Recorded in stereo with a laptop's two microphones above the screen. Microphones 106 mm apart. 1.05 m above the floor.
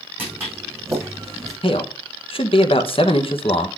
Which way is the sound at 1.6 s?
60° left (ahead or behind).